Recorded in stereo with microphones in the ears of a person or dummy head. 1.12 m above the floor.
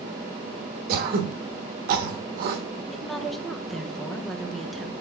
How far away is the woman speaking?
About 1.0 m.